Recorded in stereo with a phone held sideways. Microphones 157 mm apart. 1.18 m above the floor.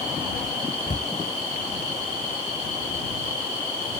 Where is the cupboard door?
55° left (ahead or behind).